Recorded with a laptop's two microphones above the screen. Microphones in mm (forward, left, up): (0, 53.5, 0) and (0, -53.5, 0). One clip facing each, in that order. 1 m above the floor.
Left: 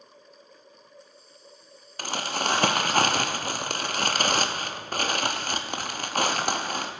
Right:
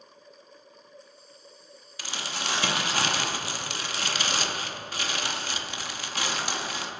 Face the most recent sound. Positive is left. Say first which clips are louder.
# left 6 dB
turn(degrees=50)  # may be behind; listen again after turning